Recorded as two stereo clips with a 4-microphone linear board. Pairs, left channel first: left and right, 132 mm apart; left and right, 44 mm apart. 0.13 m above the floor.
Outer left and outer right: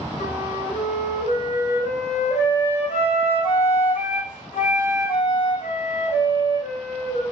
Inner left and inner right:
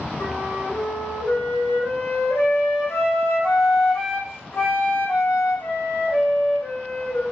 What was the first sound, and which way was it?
A flute, 65° left (ahead or behind).